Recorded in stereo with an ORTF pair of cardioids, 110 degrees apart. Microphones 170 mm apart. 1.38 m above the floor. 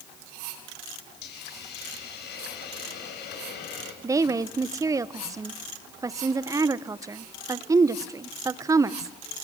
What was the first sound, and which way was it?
A hiss, 65° left.